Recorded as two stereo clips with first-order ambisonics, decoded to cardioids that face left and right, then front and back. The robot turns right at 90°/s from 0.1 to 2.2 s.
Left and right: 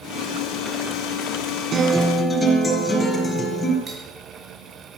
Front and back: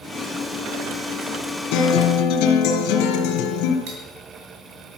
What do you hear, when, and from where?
1.7 s a guitar: 25° right, 4 m; by 3.8 s 20° left, 4 m
3.9 s cutlery clinking: 160° right, 5.5 m